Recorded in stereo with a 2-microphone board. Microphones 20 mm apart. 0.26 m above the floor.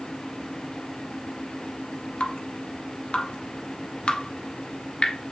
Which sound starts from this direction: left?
Dripping, at 2.2 s.